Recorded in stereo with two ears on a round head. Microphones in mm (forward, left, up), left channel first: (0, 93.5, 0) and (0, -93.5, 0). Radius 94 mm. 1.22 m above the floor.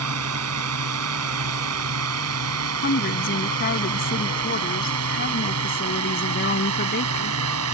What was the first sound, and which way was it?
A drone, 85° right.